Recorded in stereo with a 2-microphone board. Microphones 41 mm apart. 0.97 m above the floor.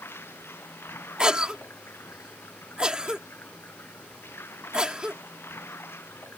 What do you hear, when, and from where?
0.0 s running water: 80° left
1.2 s a cough: 20° right (ahead or behind)